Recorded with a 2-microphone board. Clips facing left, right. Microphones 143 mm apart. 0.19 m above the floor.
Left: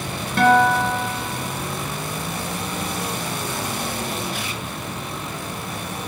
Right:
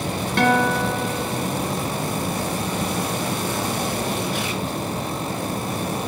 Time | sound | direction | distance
0.4 | a guitar | 5° left (ahead or behind) | 1.0 m